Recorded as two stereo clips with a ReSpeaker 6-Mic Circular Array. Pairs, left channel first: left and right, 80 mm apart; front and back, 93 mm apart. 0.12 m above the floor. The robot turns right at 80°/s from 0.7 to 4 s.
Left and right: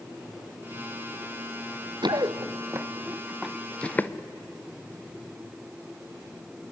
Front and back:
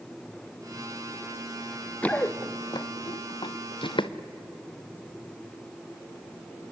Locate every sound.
2.0 s running footsteps: 75° right, 1.3 m; by 4.1 s 20° left, 1.2 m